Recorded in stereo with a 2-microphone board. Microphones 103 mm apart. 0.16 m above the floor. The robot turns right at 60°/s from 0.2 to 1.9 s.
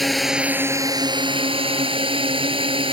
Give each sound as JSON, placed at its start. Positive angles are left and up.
{"t": 0.0, "sound": "a drone", "azimuth_deg": 180}